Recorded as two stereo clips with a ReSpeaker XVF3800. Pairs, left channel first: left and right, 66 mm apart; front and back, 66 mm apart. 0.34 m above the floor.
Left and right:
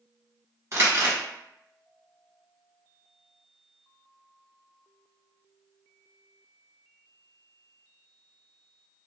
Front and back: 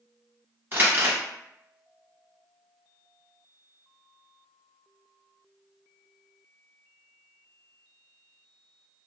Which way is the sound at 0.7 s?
125° right.